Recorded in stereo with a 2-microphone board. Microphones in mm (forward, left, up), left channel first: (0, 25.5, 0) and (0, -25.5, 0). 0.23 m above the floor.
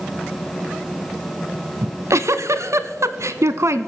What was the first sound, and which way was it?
A giggle, 70° right (ahead or behind).